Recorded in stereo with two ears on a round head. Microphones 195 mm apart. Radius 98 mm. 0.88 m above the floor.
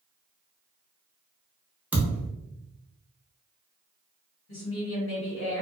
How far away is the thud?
About 0.7 m.